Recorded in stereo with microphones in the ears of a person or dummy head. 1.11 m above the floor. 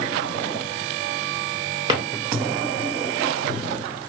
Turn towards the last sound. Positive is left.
turn(degrees=-25)  # may be behind; listen again after turning